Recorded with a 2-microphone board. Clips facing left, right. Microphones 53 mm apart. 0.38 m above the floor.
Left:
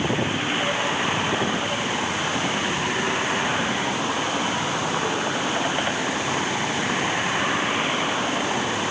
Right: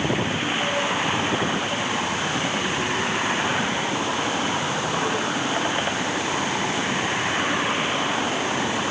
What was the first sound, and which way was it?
Only background noise.